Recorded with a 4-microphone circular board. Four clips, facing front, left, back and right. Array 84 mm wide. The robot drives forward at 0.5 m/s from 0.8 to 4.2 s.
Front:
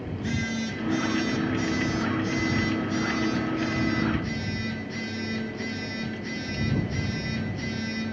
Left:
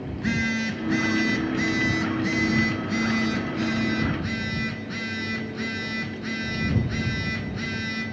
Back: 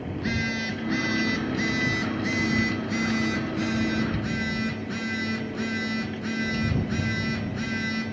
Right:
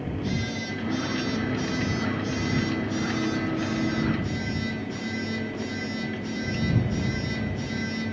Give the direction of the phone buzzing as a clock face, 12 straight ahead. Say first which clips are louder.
Left 6 dB, back 1 dB; 8 o'clock.